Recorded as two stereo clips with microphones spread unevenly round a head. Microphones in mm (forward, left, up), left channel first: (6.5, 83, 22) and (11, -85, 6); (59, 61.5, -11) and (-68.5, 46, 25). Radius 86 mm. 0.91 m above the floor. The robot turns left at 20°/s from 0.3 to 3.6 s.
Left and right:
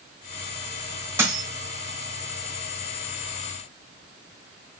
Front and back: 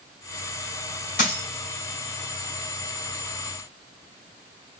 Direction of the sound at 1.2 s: 15° right.